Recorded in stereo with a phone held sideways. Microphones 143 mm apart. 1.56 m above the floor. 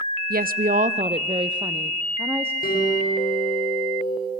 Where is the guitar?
85° left, 7.5 m.